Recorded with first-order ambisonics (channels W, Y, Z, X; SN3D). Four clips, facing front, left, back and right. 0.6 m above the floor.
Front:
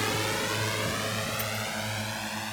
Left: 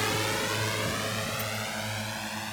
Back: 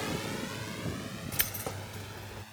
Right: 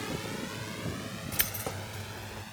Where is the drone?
50° left; by 2.5 s 35° left.